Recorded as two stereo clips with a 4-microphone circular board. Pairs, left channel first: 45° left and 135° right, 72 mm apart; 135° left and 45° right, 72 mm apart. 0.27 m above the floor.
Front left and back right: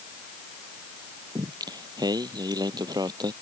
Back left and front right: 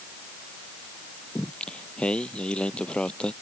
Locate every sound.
1.4 s singing: 150° right